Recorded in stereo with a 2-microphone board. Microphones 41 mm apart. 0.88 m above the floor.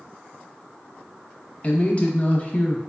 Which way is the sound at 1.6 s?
30° left (ahead or behind).